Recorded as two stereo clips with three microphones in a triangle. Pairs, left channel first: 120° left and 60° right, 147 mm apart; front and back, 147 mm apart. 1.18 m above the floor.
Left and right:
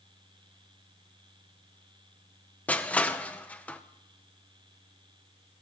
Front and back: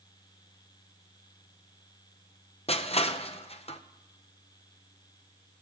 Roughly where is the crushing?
Ahead left.